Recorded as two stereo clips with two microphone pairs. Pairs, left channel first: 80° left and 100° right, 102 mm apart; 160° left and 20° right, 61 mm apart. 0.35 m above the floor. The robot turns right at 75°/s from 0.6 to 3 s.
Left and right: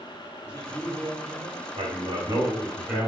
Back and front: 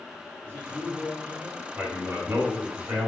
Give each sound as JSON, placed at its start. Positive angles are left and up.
{"t": 0.4, "sound": "a man speaking", "azimuth_deg": 125, "distance_m": 1.7}
{"t": 1.8, "sound": "a man speaking", "azimuth_deg": -100, "distance_m": 1.9}